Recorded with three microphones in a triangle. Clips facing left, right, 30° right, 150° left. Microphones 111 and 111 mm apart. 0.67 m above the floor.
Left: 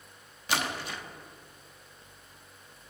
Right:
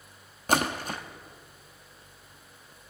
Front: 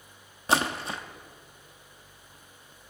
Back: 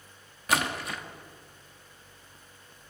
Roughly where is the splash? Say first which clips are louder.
Right 5 dB, front 2 dB; right.